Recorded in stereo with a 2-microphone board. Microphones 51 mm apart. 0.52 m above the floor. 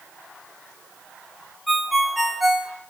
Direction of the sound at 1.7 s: 5° right (ahead or behind).